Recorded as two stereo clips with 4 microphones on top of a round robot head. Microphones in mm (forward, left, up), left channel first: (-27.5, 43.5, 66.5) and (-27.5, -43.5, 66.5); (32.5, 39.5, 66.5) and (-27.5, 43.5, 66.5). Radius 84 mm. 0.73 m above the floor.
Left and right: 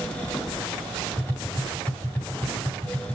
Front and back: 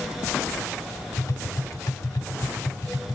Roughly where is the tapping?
Ahead.